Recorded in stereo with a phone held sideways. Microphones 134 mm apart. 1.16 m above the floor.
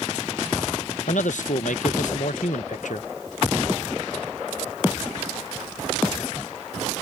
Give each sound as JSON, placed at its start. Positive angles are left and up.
{"t": 1.1, "sound": "a man speaking", "side_deg": 70}